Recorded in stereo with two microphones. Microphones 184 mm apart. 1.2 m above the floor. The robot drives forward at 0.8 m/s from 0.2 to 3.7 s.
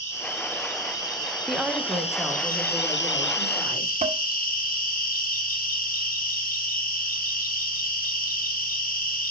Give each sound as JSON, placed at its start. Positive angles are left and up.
{"t": 0.0, "sound": "an insect", "side_deg": 15, "distance_m": 2.5}
{"t": 1.5, "sound": "a woman speaking", "side_deg": -5, "distance_m": 0.7}
{"t": 4.0, "sound": "dishes clattering", "side_deg": -45, "distance_m": 0.7}